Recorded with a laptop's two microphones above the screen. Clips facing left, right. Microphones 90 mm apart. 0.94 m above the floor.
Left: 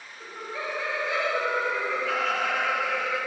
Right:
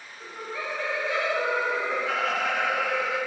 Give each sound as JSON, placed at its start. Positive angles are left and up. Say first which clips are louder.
{"t": 0.2, "sound": "laughter", "louder": "even", "side_deg": 25, "distance_m": 1.1}